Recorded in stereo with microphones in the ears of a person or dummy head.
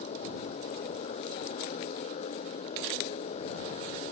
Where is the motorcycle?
40° left (ahead or behind).